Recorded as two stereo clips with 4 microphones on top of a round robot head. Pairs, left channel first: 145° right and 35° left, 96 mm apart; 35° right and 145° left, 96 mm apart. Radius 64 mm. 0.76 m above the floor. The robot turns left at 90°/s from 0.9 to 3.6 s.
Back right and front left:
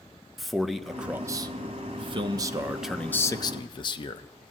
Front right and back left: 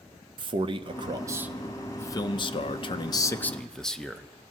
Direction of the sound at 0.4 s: 125° left.